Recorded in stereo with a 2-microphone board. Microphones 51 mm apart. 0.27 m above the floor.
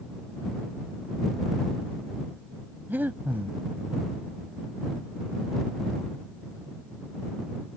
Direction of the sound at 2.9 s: 40° right (ahead or behind).